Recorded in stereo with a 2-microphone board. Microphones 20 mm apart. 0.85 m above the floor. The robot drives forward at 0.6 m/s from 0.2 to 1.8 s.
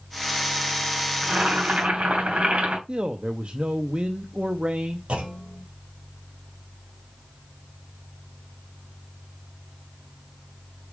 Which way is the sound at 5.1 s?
70° right (ahead or behind).